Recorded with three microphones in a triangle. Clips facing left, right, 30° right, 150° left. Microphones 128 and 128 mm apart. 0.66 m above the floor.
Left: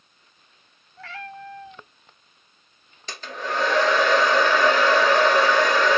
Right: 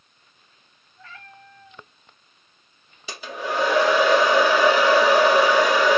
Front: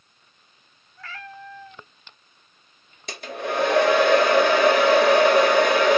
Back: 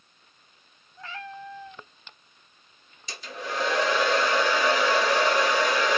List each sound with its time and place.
1.0 s a cat meowing: 80° left, 0.6 m
3.1 s a hair dryer: 10° right, 0.9 m